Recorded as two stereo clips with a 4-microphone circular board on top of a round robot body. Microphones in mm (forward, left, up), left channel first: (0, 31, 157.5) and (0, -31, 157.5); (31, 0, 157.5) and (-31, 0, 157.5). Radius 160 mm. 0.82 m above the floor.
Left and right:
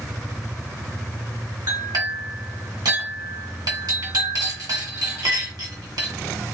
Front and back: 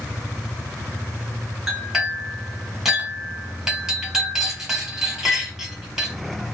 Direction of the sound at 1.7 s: 95° right.